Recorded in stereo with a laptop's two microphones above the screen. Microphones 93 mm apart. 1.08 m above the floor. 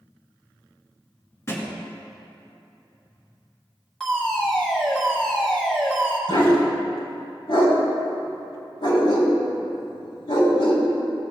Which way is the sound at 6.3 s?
70° left (ahead or behind).